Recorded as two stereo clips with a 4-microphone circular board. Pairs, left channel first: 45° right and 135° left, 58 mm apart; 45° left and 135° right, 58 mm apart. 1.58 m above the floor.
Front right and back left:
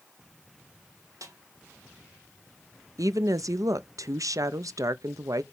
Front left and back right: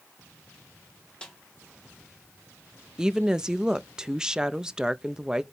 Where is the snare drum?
120° left, 1.8 m.